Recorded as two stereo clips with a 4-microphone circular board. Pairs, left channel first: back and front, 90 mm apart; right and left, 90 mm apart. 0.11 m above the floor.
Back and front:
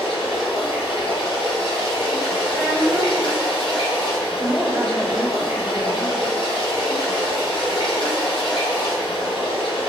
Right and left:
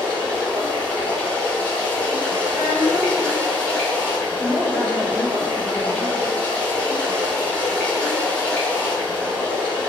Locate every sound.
0.0 s running water: 165° right, 1.6 m
2.5 s a child speaking: 95° left, 1.3 m
4.4 s a woman speaking: 45° right, 1.7 m